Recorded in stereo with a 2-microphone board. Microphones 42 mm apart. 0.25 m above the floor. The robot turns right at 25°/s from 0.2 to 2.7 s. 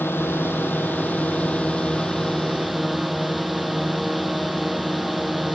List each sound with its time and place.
0.0 s a drone: 120° left; by 5.5 s straight behind